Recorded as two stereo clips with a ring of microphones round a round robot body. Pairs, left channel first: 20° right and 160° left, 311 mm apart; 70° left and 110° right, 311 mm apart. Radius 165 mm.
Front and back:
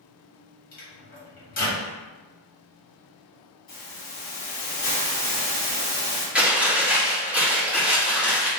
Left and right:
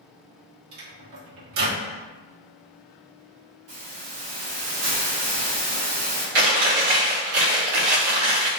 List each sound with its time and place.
0.7 s a microwave: 85° right, 1.3 m
3.7 s a hiss: 85° right, 1.5 m
6.3 s chewing: 115° right, 1.2 m